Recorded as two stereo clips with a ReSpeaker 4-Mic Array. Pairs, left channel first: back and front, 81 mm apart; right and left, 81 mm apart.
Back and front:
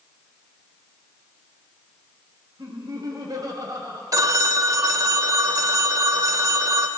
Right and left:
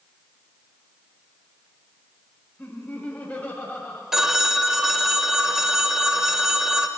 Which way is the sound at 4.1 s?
5° left.